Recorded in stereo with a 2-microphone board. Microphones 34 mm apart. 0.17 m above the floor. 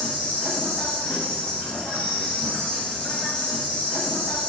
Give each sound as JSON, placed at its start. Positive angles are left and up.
{"t": 0.0, "sound": "an insect", "side_deg": 30, "distance_m": 1.0}